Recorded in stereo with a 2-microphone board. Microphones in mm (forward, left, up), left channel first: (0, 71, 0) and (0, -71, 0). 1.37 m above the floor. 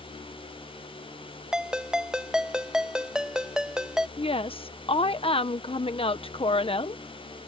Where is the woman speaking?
40° left (ahead or behind).